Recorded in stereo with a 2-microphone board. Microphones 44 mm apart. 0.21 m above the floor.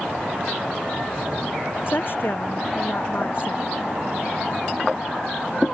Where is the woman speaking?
50° left (ahead or behind).